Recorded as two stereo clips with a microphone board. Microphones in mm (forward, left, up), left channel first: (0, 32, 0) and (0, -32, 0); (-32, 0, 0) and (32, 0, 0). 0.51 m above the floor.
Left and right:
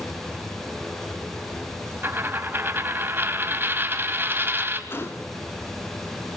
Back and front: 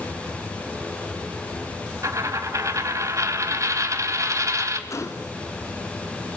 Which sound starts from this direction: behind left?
A gunshot, at 4.9 s.